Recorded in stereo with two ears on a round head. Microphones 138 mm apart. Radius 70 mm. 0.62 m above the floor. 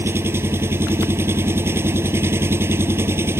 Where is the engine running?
15° right (ahead or behind).